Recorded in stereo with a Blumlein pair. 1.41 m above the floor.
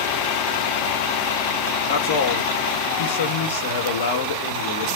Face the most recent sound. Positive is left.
turn(degrees=55)